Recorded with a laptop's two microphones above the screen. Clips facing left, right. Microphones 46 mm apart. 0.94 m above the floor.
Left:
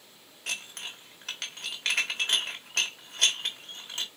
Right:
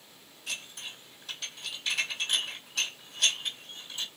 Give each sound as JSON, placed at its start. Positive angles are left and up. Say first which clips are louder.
{"t": 0.5, "sound": "dishes clattering", "louder": "left 3 dB", "side_deg": 85, "distance_m": 1.0}